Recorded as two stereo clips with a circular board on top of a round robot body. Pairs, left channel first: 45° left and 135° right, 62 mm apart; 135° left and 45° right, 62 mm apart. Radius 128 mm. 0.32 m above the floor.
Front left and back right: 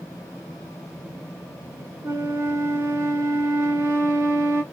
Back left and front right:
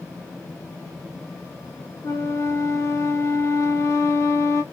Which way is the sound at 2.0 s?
Straight behind.